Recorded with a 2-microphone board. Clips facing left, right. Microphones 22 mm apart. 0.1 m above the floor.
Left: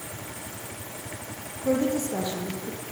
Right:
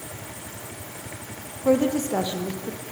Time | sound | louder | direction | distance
1.6 | a woman speaking | right 4 dB | 40° right (ahead or behind) | 3.5 m